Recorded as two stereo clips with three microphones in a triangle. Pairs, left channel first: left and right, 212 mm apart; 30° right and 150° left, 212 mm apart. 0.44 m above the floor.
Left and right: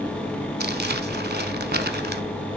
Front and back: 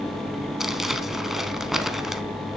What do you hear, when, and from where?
0.6 s crumpling: 120° right, 0.7 m